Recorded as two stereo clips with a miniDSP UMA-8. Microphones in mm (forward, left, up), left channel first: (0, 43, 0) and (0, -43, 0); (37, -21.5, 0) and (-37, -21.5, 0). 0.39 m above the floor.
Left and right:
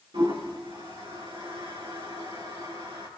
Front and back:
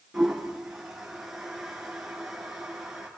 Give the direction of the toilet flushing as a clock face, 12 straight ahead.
3 o'clock.